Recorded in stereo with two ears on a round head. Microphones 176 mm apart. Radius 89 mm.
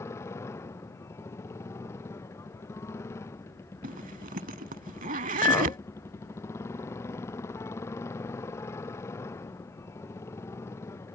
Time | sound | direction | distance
0.0 | a motorcycle | 15° left (ahead or behind) | ?
3.8 | a zipper | 40° right (ahead or behind) | ?
5.4 | a clink | 15° left (ahead or behind) | ?